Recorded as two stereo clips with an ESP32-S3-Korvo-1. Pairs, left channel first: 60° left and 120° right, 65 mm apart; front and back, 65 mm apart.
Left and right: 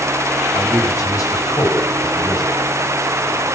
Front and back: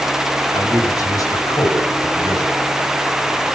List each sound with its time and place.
0.5 s a man speaking: 30° left, 9.5 m; by 2.6 s 25° left, 12 m